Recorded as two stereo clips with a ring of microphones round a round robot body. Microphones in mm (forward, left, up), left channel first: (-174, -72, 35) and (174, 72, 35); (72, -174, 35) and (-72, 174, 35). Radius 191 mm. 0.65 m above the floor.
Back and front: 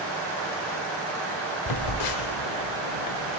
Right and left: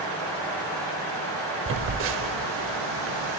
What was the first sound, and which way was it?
A phone buzzing, 170° left.